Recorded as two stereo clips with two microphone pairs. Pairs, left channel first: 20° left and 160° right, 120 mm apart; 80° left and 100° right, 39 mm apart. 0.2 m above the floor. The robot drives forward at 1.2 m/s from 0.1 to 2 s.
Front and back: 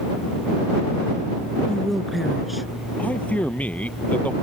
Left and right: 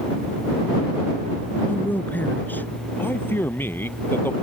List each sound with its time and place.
1.7 s a woman speaking: 95° left; by 2.7 s 110° left
3.0 s a man speaking: 95° left